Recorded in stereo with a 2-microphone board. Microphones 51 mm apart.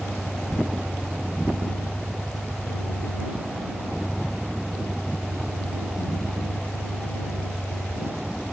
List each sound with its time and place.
0.0 s a vehicle: 20° right (ahead or behind)